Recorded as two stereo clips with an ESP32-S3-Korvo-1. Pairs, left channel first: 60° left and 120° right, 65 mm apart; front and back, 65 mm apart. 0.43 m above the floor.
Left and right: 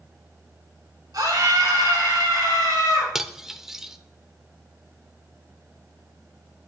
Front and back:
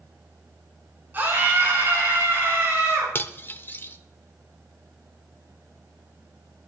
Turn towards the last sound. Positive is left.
turn(degrees=-40)